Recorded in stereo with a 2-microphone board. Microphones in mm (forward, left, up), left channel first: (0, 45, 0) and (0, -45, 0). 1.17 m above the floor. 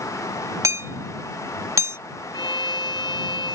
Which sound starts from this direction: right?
Hammering, at 0.6 s.